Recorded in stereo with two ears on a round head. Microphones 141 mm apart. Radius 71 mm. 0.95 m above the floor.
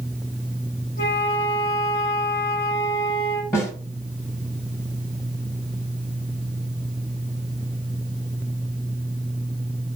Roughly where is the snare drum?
Centre.